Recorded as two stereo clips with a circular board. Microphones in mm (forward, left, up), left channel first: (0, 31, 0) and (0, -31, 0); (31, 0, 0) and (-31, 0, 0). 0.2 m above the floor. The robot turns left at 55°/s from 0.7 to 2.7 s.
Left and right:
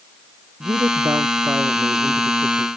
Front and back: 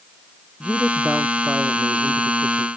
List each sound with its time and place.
0.6 s a woman speaking: 75° right; by 2.7 s 175° left